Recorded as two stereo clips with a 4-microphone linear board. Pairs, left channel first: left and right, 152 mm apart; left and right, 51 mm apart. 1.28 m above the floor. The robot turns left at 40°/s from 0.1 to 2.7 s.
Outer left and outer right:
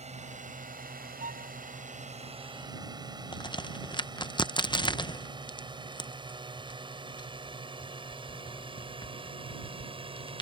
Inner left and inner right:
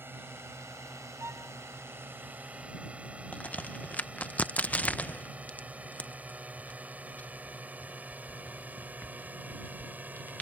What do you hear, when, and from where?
0.0 s a drone: 50° right (ahead or behind); by 10.4 s 40° right (ahead or behind)
1.2 s a violin: 65° right (ahead or behind); by 1.6 s 55° right (ahead or behind)
3.3 s a crack: 30° left (ahead or behind)